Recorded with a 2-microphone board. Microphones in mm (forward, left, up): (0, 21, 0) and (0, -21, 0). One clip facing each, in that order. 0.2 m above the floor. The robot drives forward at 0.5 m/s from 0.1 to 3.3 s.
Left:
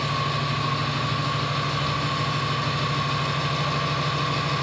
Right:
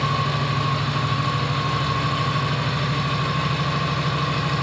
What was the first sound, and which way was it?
An engine running, 60° right (ahead or behind).